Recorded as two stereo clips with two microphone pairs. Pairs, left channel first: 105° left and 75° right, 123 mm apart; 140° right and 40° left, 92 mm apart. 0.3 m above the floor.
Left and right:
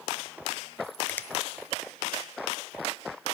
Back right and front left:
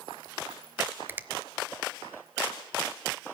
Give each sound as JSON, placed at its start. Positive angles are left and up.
{"t": 1.1, "sound": "a finger snap", "azimuth_deg": 55, "distance_m": 0.7}